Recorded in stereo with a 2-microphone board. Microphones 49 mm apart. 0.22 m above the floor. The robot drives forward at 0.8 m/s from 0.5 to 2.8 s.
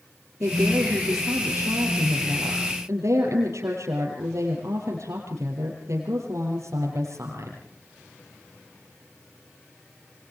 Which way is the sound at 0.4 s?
75° right (ahead or behind).